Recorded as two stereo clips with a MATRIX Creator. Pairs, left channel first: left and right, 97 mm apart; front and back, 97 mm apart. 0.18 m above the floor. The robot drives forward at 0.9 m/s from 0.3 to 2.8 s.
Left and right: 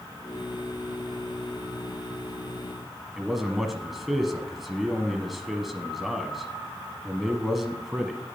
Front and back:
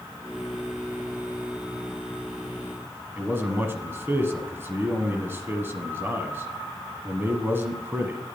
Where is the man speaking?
175° right, 1.1 m.